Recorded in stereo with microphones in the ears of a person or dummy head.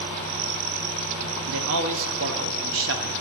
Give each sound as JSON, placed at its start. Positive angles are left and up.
{"t": 1.5, "sound": "a man speaking", "side_deg": -60, "distance_m": 0.7}